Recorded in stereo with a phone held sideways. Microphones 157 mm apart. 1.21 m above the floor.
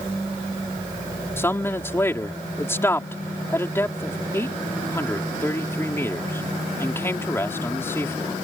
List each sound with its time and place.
1.4 s a man speaking: 15° left (ahead or behind)